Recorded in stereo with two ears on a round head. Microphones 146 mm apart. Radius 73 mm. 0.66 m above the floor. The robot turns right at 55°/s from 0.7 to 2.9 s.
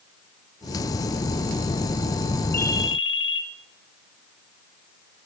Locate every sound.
2.5 s a ringtone: 15° left (ahead or behind), 0.9 m; by 3.4 s 30° left (ahead or behind), 0.9 m